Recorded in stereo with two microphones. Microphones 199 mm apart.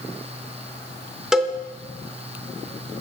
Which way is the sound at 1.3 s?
5° right (ahead or behind).